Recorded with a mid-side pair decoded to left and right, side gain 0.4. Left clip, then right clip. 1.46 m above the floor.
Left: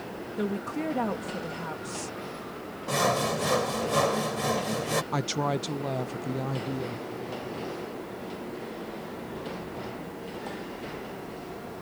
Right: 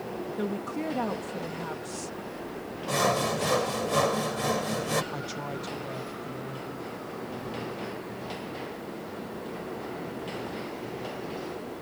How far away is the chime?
I don't hear a chime.